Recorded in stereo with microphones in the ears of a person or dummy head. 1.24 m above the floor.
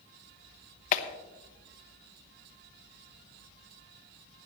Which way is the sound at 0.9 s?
45° left (ahead or behind).